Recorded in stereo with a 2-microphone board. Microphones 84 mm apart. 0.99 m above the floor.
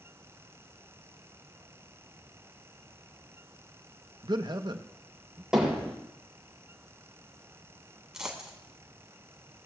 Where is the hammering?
10° right (ahead or behind), 7.5 m.